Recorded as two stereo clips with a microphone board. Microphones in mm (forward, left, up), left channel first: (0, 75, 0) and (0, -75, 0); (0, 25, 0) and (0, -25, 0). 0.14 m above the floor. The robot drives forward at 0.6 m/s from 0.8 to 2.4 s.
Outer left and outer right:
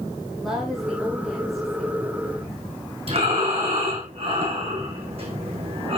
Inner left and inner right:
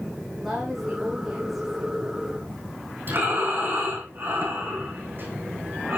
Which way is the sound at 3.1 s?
45° right (ahead or behind).